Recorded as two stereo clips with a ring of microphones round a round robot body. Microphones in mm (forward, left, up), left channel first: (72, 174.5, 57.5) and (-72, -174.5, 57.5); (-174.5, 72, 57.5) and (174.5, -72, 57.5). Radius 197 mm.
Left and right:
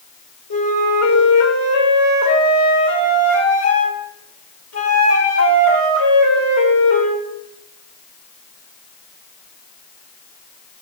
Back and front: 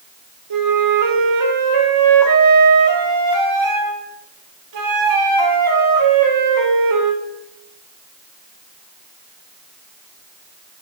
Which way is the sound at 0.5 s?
15° left.